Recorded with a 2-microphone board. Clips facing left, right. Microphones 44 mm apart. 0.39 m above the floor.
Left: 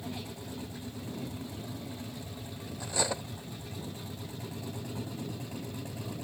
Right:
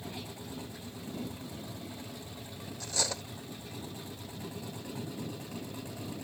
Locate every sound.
2.8 s cutlery clinking: 15° left (ahead or behind)